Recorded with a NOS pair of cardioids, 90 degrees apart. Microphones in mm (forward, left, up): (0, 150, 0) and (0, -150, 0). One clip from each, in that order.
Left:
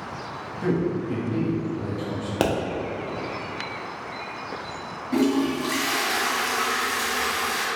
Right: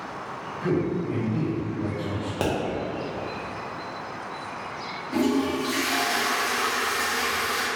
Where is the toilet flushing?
25° left, 1.1 m.